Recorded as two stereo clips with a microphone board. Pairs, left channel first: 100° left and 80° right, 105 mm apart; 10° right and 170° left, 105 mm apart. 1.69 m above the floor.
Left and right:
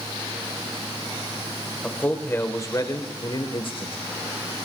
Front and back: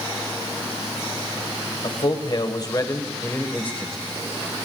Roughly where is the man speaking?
Ahead left.